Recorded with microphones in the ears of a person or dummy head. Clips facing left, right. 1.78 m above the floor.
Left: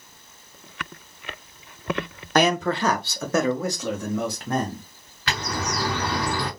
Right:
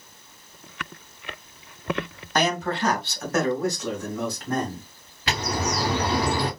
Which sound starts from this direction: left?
A man speaking, at 2.4 s.